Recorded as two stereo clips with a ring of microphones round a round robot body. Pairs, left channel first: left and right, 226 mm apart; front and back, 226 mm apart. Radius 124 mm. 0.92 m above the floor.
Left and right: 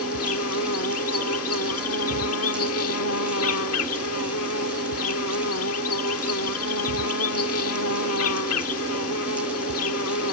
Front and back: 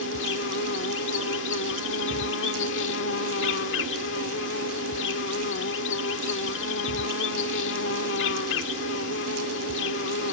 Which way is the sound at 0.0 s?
50° left.